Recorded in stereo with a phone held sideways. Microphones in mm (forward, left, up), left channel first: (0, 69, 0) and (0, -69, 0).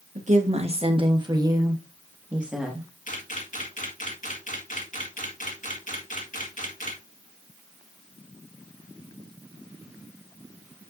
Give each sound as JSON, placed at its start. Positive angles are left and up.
{"t": 0.1, "sound": "a woman speaking", "side_deg": -60, "distance_m": 1.5}
{"t": 3.1, "sound": "a camera shutter", "side_deg": 70, "distance_m": 1.9}